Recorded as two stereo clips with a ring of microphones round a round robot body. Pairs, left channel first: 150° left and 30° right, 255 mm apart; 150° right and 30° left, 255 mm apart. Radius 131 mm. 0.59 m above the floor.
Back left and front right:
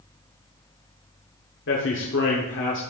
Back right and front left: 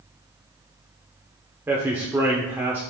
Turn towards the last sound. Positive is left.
turn(degrees=110)